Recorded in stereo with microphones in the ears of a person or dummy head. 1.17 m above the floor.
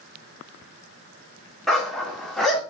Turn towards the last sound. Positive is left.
turn(degrees=5)  # may be behind; listen again after turning